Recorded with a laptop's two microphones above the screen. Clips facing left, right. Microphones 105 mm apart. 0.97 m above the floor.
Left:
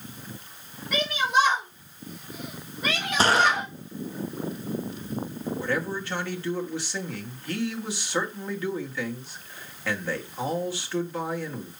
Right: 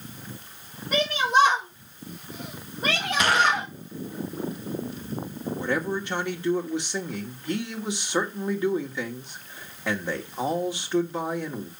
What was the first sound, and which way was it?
A shout, 30° right (ahead or behind).